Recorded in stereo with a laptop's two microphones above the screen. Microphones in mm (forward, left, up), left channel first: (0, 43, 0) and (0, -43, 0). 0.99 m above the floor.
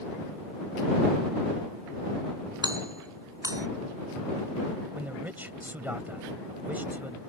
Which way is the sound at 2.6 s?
45° right (ahead or behind).